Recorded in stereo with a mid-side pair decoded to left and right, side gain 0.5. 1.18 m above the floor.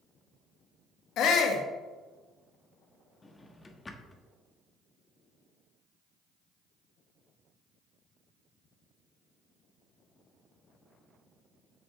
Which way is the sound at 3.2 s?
25° left.